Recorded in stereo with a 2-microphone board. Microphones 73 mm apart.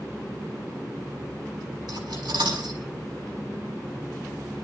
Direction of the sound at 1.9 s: 90° right.